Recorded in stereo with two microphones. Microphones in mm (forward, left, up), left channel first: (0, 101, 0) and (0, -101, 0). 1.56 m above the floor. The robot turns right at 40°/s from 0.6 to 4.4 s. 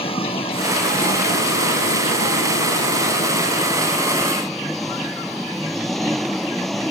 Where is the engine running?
25° left; by 6.9 s straight behind.